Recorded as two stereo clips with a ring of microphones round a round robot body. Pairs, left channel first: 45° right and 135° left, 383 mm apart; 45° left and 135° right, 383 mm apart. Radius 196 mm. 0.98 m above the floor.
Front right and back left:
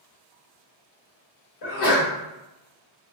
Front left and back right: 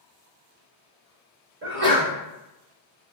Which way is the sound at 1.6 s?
75° right.